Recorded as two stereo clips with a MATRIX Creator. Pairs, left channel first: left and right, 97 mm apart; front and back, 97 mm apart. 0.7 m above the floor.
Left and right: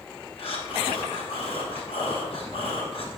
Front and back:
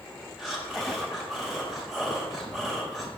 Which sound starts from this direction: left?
Breathing, at 0.4 s.